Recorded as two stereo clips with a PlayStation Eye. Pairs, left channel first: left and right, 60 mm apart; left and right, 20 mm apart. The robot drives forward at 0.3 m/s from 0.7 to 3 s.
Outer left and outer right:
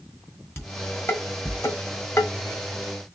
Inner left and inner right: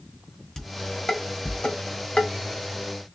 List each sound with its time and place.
0.6 s dishes clattering: 45° left (ahead or behind), 1.6 m; by 2.3 s 55° left (ahead or behind), 1.3 m